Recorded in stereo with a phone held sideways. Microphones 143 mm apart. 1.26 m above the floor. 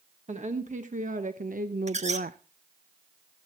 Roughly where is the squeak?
Right.